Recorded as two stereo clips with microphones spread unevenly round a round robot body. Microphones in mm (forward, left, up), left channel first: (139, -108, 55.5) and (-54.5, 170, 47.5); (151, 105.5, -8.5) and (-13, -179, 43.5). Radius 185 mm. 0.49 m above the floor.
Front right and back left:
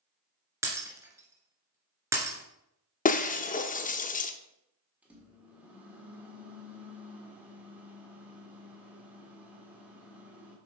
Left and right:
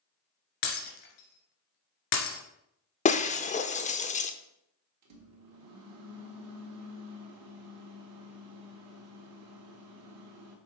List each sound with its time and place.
0.6 s breaking glass: 45° left, 2 m
3.0 s breaking glass: 5° left, 0.8 m
5.0 s a microwave: 150° right, 1.4 m